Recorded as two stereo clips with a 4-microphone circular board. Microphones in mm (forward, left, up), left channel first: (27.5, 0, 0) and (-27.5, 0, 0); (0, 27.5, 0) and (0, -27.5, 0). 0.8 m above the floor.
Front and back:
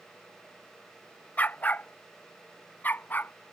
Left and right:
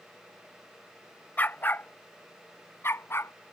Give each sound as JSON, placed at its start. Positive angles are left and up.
{"t": 1.4, "sound": "a dog barking", "azimuth_deg": 50}